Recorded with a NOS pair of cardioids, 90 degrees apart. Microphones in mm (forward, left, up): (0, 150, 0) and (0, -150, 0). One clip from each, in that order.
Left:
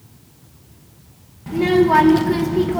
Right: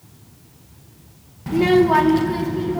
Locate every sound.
1.5 s a child speaking: 20° right, 1.2 m; by 2.8 s 50° left, 1.6 m